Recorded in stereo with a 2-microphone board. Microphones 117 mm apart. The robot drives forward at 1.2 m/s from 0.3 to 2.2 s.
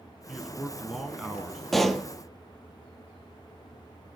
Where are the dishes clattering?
No dishes clattering in this recording.